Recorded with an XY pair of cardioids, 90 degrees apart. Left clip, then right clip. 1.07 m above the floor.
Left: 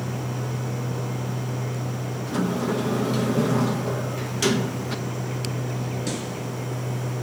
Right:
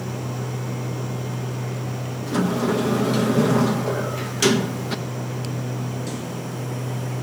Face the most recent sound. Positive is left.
turn(degrees=-25)